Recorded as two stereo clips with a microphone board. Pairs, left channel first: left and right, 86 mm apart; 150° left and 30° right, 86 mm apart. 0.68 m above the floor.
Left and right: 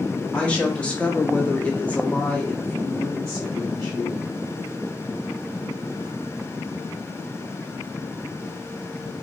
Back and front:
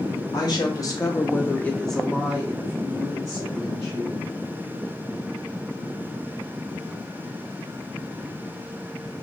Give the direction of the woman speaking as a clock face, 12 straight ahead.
7 o'clock.